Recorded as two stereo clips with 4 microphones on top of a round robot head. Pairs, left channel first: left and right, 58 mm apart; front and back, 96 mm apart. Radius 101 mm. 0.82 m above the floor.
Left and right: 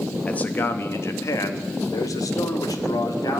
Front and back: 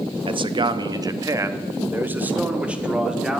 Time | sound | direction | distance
0.3 | a man speaking | 160° left | 1.0 m